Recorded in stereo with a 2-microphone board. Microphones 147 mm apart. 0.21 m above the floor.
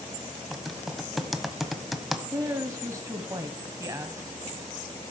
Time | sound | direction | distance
0.5 | typing on a keyboard | centre (ahead or behind) | 1.0 m
2.3 | a woman speaking | 20° right (ahead or behind) | 1.0 m